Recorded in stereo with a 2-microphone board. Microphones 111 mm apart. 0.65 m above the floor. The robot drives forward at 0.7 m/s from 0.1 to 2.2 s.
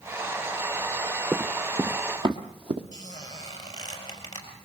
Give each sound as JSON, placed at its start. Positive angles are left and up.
{"t": 1.3, "sound": "running footsteps", "side_deg": -20, "distance_m": 0.9}
{"t": 2.9, "sound": "a squeak", "side_deg": 40, "distance_m": 4.5}